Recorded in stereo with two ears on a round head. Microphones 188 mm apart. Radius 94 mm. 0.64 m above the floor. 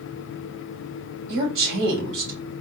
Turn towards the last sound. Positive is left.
turn(degrees=-60)  # may be behind; listen again after turning